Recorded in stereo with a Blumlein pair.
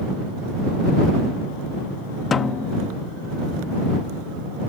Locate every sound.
2.3 s a snare drum: 20° left